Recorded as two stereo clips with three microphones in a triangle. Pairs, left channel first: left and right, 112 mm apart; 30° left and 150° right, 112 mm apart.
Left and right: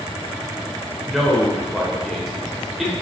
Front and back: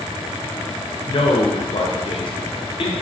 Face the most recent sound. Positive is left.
turn(degrees=0)